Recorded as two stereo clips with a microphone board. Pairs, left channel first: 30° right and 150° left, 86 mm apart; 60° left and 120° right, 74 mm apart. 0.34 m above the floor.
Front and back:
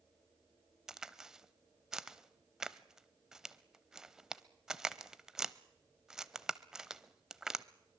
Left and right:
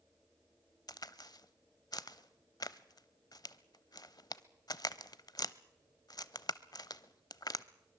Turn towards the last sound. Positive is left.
turn(degrees=65)